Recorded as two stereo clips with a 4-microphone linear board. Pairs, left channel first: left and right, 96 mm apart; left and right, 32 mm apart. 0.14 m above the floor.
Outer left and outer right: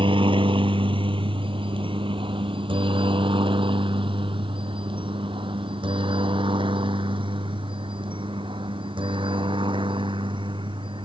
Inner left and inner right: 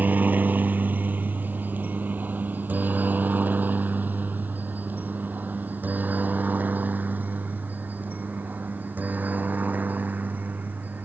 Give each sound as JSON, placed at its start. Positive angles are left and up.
{"t": 0.0, "sound": "a helicopter", "side_deg": -65}